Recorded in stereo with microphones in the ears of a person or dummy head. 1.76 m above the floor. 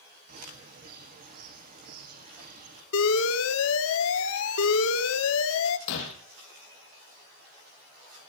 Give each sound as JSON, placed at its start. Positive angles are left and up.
{"t": 0.3, "sound": "a bird", "side_deg": -45, "distance_m": 1.7}
{"t": 2.9, "sound": "an alarm", "side_deg": 70, "distance_m": 1.8}
{"t": 5.9, "sound": "breaking glass", "side_deg": 60, "distance_m": 4.5}